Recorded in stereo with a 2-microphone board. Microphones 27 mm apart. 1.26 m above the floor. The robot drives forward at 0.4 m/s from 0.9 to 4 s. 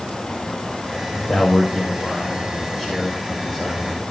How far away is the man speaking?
About 6 m.